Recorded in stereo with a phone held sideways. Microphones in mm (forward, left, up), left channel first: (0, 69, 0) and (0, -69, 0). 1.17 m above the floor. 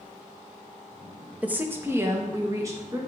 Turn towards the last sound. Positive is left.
turn(degrees=-25)  # may be behind; listen again after turning